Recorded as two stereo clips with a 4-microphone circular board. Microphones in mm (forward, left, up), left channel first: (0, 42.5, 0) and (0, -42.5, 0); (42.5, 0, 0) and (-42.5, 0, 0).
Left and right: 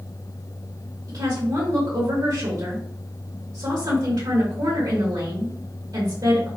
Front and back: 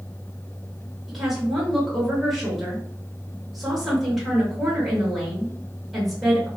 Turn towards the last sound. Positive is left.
turn(degrees=-95)